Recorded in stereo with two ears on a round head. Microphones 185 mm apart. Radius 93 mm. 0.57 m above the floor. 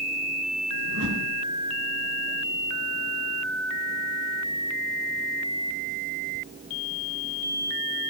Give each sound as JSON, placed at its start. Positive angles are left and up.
{"t": 0.8, "sound": "a whoosh", "side_deg": -75, "distance_m": 3.0}